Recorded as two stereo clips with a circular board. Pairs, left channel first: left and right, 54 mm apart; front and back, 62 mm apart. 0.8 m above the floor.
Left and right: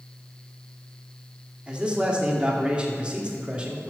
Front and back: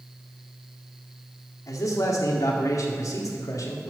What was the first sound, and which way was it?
A man speaking, 20° right.